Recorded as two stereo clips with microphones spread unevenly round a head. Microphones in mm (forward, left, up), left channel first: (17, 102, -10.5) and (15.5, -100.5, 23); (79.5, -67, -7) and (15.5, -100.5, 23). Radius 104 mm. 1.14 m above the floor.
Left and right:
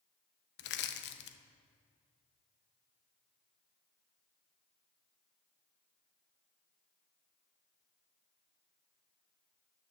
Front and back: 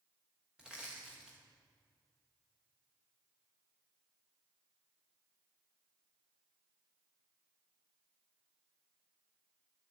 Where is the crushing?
135° left, 0.5 m.